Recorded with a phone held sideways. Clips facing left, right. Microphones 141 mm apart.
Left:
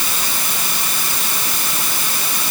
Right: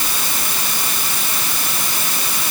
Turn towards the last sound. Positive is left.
No sound to turn to.